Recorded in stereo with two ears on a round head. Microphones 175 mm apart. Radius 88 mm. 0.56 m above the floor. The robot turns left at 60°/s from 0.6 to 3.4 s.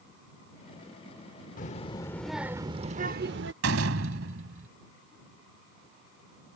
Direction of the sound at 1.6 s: 45° left.